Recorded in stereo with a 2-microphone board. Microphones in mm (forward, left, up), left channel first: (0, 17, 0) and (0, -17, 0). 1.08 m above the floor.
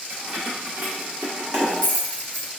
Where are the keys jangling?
45° right (ahead or behind), 2 m; by 2.5 s 70° right (ahead or behind), 1.5 m.